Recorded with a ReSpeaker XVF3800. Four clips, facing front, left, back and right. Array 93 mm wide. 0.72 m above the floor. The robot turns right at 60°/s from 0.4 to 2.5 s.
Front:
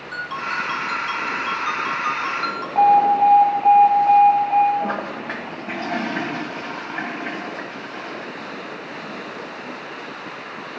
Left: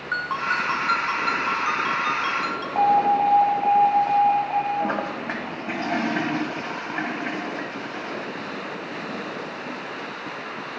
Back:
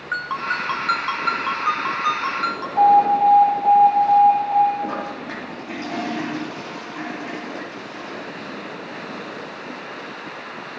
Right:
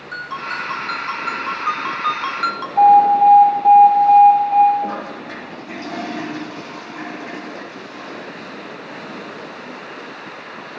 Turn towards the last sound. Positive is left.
turn(degrees=45)